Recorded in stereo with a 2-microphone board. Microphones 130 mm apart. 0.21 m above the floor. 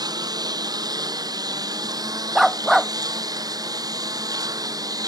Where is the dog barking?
Centre (ahead or behind).